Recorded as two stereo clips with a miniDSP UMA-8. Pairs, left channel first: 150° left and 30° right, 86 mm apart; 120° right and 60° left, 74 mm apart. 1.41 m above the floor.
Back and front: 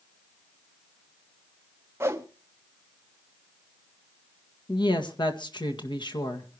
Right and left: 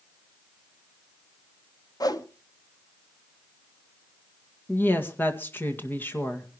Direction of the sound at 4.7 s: 175° left.